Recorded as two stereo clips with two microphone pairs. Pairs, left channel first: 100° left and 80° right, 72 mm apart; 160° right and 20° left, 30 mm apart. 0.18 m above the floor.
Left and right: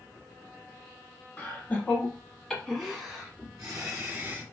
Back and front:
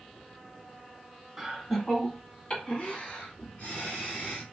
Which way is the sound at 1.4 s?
100° left.